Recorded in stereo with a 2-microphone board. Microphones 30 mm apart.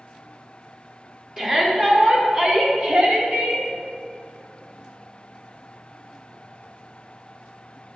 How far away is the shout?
About 2.5 m.